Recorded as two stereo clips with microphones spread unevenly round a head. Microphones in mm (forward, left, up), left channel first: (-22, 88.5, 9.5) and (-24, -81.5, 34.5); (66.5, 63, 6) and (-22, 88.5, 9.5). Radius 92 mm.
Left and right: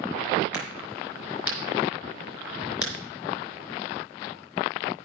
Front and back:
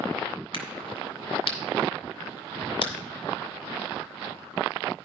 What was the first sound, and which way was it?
A crack, 10° right.